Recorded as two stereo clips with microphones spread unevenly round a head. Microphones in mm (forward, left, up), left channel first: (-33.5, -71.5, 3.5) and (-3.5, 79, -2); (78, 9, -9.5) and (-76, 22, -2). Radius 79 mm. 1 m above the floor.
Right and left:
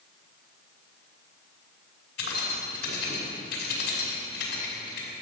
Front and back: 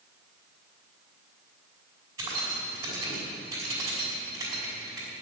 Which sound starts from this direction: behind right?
Keys jangling, at 2.2 s.